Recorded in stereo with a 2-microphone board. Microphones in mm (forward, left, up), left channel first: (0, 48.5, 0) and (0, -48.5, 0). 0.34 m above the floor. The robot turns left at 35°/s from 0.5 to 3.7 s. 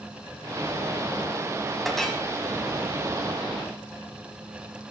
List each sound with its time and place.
1.9 s a clink: 5° right (ahead or behind), 1.2 m; by 2.2 s 10° left (ahead or behind), 1.2 m